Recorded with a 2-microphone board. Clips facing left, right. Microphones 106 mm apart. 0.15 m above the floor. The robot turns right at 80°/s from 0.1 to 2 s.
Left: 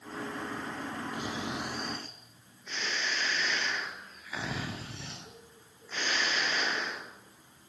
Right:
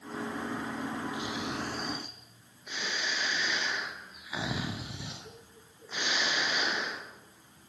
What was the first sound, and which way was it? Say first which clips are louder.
Snoring: even; 125° left.